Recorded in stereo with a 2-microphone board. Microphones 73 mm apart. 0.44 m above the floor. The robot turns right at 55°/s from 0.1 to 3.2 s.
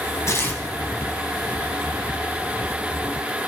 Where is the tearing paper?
45° left (ahead or behind), 2.5 m; by 0.6 s 25° left (ahead or behind), 2.5 m.